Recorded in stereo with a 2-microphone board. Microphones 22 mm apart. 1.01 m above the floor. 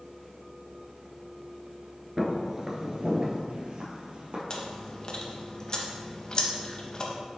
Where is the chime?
No chime in this recording.